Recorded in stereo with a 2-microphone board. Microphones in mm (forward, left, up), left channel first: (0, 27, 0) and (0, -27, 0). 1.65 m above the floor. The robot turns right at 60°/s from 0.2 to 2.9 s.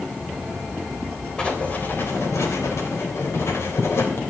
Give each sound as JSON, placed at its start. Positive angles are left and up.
{"t": 1.4, "sound": "writing", "azimuth_deg": 20, "distance_m": 3.0}